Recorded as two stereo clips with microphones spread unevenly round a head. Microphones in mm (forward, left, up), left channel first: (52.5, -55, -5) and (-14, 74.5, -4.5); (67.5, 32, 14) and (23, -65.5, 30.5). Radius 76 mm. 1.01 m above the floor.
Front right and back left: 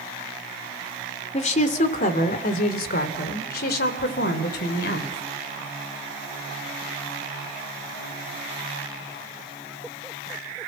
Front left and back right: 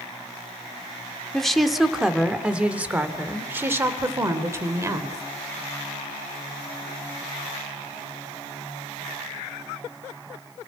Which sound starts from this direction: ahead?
A woman speaking, at 1.3 s.